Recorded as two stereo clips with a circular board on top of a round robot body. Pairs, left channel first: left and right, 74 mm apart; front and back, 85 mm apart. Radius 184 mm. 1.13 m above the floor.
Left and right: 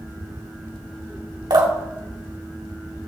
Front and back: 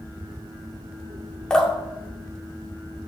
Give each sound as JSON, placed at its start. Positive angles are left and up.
{"t": 1.5, "sound": "dripping", "azimuth_deg": -80, "distance_m": 2.5}